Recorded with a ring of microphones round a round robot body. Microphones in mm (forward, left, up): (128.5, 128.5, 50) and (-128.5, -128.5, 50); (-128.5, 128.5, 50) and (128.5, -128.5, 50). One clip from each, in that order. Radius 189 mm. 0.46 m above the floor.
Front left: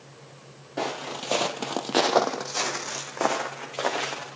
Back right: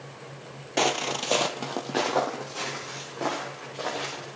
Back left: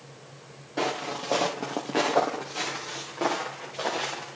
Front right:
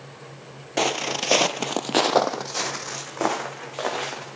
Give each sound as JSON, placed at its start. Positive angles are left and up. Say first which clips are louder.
{"t": 0.8, "sound": "footsteps", "louder": "back right 5 dB, front right 6 dB", "azimuth_deg": -95, "distance_m": 1.0}